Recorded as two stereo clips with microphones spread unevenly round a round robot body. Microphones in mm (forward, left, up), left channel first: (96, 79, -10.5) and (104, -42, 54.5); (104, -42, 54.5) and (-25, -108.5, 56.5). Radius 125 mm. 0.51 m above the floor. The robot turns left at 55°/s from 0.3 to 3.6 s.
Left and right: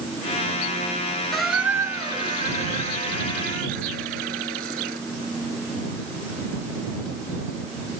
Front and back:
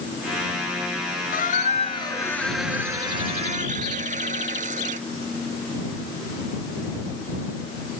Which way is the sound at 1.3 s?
5° left.